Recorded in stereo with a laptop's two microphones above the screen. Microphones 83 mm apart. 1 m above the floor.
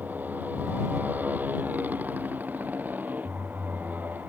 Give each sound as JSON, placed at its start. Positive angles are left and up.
{"t": 0.0, "sound": "a motorcycle", "side_deg": -20}